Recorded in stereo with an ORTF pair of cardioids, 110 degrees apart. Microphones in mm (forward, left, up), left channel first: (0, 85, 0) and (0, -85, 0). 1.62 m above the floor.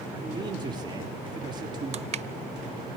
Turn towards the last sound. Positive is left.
turn(degrees=-40)